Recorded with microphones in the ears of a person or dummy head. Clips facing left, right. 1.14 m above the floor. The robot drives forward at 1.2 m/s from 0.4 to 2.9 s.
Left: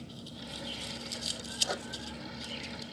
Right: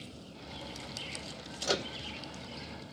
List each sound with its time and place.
1.6 s a microwave: 40° right (ahead or behind); by 1.9 s 60° right (ahead or behind)